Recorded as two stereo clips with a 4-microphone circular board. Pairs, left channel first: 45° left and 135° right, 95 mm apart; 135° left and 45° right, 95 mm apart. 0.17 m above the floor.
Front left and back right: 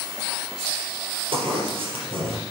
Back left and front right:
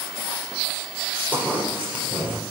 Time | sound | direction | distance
1.3 | a zipper | 120° right | 4 m